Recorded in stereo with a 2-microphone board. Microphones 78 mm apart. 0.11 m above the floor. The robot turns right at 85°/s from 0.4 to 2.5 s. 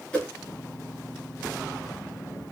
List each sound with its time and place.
0.1 s a whoosh: 15° left (ahead or behind), 1.7 m